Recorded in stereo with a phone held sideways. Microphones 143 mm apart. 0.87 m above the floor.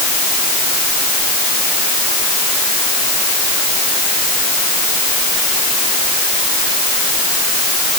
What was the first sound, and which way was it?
Only background noise.